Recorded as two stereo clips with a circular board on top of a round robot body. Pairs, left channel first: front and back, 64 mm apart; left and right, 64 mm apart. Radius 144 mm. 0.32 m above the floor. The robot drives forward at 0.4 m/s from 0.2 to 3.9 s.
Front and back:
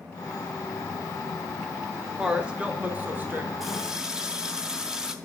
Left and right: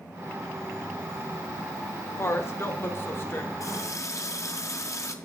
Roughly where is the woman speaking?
Left.